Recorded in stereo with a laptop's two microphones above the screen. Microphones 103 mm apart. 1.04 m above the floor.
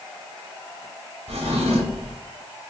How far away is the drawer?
About 1.0 m.